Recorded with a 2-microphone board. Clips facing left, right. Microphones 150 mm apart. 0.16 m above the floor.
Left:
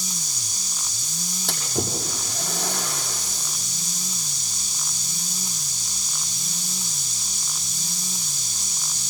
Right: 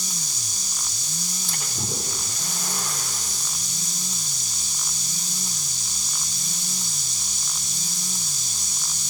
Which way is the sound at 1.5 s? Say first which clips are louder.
Left 7 dB; 75° left (ahead or behind).